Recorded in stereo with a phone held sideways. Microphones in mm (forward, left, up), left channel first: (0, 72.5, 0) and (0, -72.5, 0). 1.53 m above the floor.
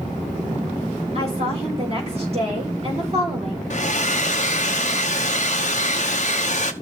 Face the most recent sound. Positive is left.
turn(degrees=55)  # may be behind; listen again after turning